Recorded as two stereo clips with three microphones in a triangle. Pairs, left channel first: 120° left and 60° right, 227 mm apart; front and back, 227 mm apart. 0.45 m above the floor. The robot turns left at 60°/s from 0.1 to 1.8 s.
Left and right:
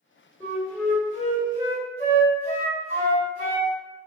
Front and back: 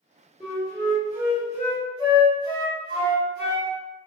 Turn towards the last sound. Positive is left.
turn(degrees=-40)